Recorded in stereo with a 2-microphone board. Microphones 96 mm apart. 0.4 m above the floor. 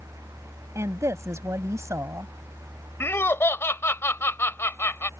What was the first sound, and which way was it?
A woman speaking, 35° right (ahead or behind).